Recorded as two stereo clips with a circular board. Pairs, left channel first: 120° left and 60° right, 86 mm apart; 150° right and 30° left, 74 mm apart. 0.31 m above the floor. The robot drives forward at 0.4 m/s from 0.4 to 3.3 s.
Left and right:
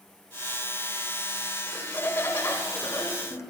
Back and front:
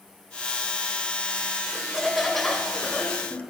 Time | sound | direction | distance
1.7 | laughter | 90° left | 1.0 m